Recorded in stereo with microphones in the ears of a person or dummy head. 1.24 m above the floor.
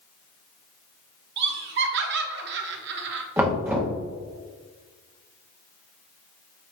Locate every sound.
1.4 s laughter: 55° right (ahead or behind), 0.8 m
3.4 s knocking: 10° right (ahead or behind), 1.3 m